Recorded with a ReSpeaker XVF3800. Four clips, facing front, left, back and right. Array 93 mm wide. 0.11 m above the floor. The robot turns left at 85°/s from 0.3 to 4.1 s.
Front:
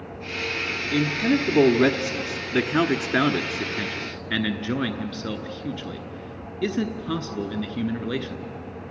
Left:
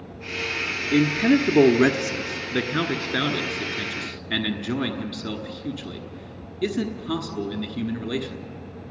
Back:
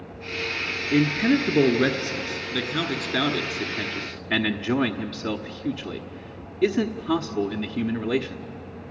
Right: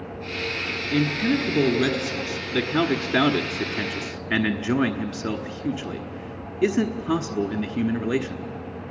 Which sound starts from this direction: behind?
A man speaking, at 0.9 s.